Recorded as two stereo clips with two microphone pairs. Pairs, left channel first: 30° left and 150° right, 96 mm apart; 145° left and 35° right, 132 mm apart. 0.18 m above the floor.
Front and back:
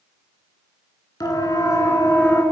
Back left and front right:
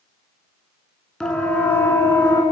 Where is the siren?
60° left, 2.5 m; by 2.4 s 85° left, 2.5 m.